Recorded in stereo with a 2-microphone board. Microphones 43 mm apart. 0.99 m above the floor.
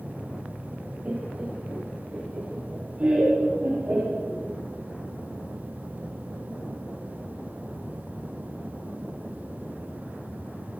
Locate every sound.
1.1 s laughter: 35° right (ahead or behind), 2 m